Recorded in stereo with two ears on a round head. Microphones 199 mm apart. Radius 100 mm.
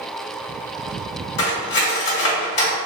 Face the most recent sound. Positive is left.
turn(degrees=55)  # may be behind; listen again after turning